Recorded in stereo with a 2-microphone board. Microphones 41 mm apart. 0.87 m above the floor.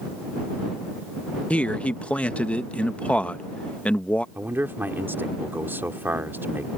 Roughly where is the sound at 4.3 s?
Right.